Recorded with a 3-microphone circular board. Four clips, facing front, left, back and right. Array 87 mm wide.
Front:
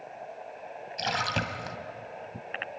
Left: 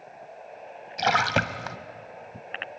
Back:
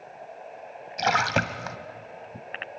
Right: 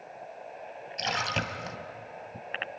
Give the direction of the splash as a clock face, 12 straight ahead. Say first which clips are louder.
Left 9 dB, back 7 dB; 8 o'clock.